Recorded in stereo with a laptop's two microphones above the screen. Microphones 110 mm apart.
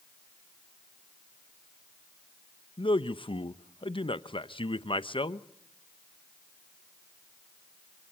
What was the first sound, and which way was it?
A man speaking, 50° left (ahead or behind).